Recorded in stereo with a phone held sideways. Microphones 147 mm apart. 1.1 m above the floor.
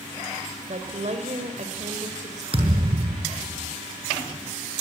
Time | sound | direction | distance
0.7 | a woman speaking | 55° right (ahead or behind) | 4 m
2.5 | a thud | 40° right (ahead or behind) | 6.5 m